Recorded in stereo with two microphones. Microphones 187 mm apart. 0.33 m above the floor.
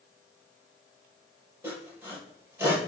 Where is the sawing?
10° right (ahead or behind), 5.5 m.